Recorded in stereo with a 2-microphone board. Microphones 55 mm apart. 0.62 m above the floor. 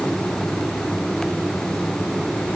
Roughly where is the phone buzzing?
No phone buzzing in this recording.